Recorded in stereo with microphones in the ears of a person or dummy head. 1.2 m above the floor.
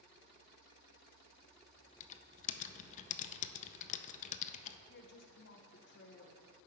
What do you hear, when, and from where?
2.0 s typing on a keyboard: 40° left (ahead or behind), 0.5 m
4.9 s a woman speaking: 55° left (ahead or behind), 0.9 m